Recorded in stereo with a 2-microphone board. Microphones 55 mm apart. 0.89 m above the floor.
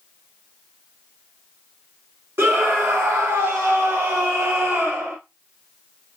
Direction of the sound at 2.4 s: 55° right (ahead or behind).